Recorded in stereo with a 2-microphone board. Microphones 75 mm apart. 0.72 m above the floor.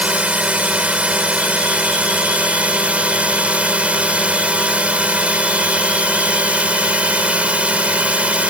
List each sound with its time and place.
0.0 s a drone: 15° right (ahead or behind)